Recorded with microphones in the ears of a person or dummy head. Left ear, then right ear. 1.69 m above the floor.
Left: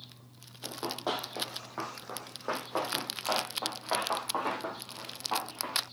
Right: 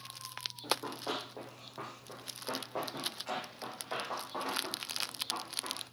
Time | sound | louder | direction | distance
0.6 | running footsteps | left 2 dB | 40° left (ahead or behind) | 2.5 m